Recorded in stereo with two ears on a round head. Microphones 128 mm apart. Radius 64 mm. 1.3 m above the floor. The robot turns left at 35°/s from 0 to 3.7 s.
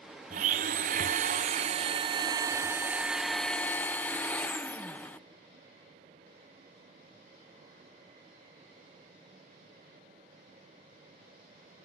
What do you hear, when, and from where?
0.3 s a blender: 75° right, 0.8 m; by 5.3 s 165° left, 0.8 m